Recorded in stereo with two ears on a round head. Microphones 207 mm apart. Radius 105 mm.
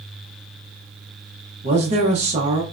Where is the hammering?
I don't hear hammering.